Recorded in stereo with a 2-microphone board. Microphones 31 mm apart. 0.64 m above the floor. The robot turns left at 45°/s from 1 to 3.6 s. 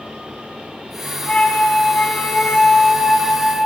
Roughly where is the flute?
Behind left.